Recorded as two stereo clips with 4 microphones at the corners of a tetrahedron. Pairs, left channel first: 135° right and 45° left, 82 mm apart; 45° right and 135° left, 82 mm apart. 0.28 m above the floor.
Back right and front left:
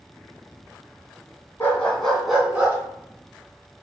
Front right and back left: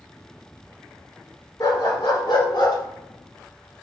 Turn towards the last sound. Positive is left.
turn(degrees=-25)